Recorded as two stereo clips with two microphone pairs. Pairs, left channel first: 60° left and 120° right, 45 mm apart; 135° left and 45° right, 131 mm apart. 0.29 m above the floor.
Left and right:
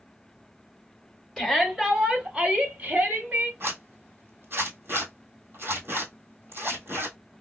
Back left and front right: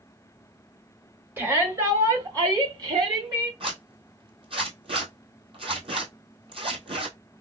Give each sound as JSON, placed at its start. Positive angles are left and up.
{"t": 1.4, "sound": "a shout", "azimuth_deg": -20, "distance_m": 1.5}
{"t": 3.6, "sound": "a zipper", "azimuth_deg": -85, "distance_m": 1.4}